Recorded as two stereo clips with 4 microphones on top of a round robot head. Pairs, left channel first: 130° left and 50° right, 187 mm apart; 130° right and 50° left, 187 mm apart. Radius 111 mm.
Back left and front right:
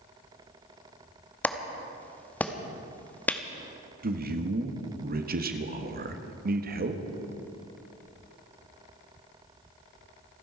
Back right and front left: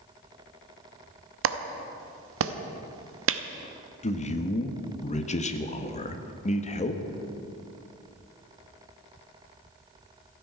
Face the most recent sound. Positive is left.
turn(degrees=-80)